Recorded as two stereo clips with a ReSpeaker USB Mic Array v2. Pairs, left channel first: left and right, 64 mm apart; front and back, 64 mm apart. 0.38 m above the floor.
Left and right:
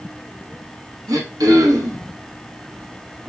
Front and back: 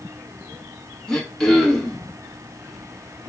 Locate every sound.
1.1 s throat clearing: 80° right, 0.7 m